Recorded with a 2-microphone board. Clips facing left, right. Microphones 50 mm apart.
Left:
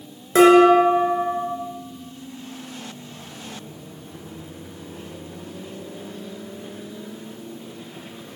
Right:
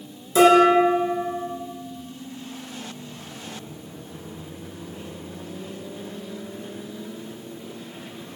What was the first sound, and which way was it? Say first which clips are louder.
Dishes clattering: left 3 dB; 50° left (ahead or behind).